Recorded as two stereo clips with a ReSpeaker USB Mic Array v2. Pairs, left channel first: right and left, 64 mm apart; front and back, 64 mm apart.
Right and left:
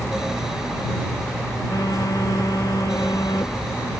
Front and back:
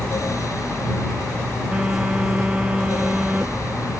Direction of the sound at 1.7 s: 105° right.